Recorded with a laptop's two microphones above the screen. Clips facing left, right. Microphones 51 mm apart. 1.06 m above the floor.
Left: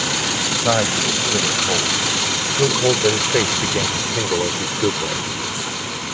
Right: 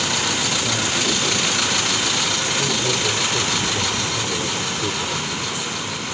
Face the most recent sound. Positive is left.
turn(degrees=40)  # may be behind; listen again after turning